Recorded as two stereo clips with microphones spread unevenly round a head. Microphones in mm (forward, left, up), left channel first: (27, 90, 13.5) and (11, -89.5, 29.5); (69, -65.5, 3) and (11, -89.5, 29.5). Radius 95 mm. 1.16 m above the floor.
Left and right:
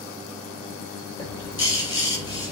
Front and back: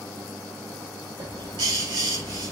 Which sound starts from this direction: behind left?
A bird, at 1.2 s.